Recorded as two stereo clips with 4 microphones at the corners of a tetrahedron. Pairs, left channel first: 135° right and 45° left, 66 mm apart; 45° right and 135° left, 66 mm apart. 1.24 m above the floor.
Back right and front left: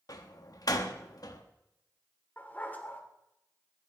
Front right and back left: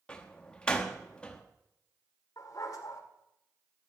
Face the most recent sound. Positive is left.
turn(degrees=-70)